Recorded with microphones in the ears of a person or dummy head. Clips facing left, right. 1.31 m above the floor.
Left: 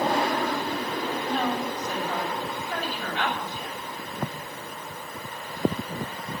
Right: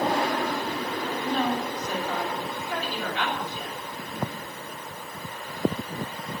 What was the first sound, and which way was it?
A woman speaking, 85° right.